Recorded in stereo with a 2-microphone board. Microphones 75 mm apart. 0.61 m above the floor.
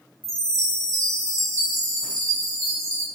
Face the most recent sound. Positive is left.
turn(degrees=-50)  # may be behind; listen again after turning